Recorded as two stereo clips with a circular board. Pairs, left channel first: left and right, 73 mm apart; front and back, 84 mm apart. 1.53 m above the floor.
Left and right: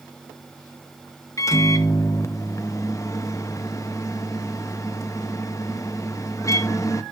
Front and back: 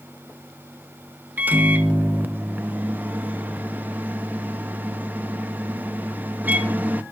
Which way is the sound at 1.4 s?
115° left.